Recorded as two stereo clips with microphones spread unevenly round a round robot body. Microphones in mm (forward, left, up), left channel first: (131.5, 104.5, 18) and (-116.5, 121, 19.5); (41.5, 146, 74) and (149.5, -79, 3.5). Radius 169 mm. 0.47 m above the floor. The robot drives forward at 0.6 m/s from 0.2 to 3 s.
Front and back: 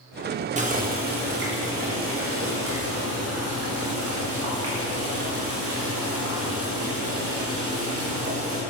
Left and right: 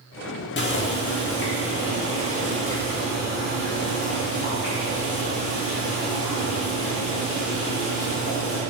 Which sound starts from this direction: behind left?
Boiling, at 0.6 s.